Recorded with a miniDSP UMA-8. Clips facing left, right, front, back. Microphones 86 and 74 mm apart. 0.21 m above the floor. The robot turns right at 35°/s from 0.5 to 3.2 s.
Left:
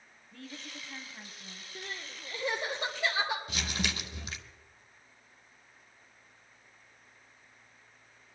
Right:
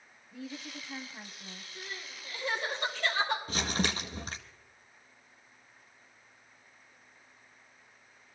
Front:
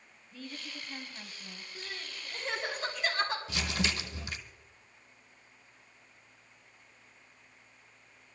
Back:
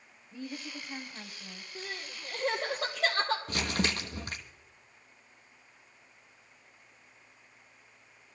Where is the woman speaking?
150° right, 1.1 m; by 1.6 s 110° right, 1.1 m.